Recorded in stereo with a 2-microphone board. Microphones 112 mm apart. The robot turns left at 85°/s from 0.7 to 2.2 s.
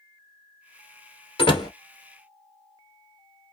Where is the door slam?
50° left (ahead or behind), 1.6 m; by 1.7 s 30° left (ahead or behind), 1.6 m.